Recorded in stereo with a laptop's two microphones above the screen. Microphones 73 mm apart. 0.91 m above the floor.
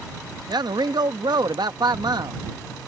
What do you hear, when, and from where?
0.5 s a man speaking: 70° right (ahead or behind)